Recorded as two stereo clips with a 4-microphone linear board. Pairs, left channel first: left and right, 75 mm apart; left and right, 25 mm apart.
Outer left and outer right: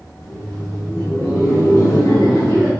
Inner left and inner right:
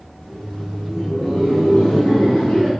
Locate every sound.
0.2 s laughter: 45° left (ahead or behind), 0.9 m; by 2.7 s 75° left (ahead or behind), 2 m